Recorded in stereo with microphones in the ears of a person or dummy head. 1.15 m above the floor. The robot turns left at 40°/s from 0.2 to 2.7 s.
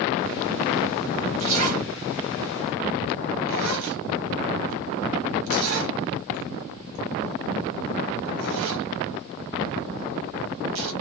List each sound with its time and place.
1.4 s a zipper: 30° right (ahead or behind), 0.8 m; by 10.9 s 75° right (ahead or behind), 0.8 m